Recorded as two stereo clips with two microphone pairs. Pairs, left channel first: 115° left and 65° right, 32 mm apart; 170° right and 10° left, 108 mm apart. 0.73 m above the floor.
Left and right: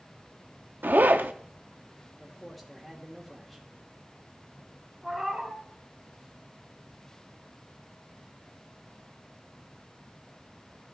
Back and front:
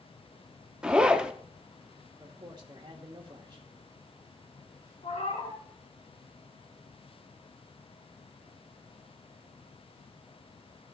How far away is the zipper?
About 0.5 m.